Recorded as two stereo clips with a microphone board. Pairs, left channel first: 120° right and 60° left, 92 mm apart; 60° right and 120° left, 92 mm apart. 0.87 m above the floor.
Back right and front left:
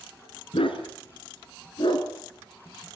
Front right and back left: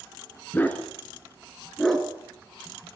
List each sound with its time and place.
0.5 s a dog barking: 130° right, 3 m; by 2.1 s 150° right, 3.5 m